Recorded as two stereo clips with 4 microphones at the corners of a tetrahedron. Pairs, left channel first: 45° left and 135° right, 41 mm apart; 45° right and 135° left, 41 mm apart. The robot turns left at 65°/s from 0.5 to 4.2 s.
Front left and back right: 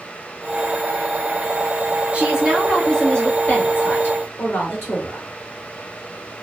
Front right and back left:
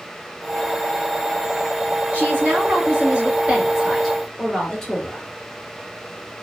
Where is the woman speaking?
175° left, 2 m; by 5.2 s 40° left, 2 m.